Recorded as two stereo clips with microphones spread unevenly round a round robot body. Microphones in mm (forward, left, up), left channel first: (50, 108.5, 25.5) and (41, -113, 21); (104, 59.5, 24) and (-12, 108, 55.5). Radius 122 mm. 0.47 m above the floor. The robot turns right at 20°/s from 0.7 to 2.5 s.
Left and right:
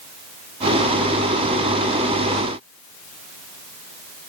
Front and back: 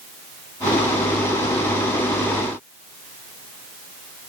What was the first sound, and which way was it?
Only background noise.